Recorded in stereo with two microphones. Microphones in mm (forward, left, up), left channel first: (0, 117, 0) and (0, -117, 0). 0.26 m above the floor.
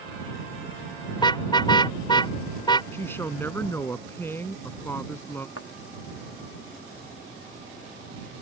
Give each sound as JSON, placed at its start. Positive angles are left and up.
{"t": 1.2, "sound": "a car horn", "side_deg": 20}
{"t": 2.9, "sound": "a woman speaking", "side_deg": 10}
{"t": 5.6, "sound": "a thud", "side_deg": 65}